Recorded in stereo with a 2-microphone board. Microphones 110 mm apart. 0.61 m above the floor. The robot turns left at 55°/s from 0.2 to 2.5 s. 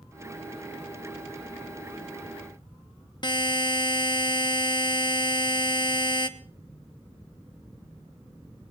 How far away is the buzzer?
About 0.9 m.